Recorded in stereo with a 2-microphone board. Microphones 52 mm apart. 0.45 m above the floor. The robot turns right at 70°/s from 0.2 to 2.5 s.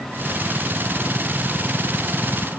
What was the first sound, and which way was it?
Only background noise.